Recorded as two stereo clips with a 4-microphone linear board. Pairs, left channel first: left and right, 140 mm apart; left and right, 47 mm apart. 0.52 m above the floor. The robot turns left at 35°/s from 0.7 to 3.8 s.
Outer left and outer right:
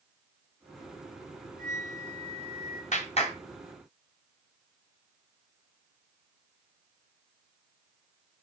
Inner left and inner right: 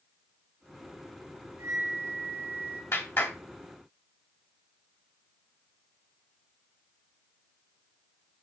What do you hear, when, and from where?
1.6 s a flute: 100° right, 3.5 m; by 2.8 s 140° right, 3.5 m
2.9 s a clap: 55° left (ahead or behind), 3 m; by 3.4 s 45° left (ahead or behind), 3 m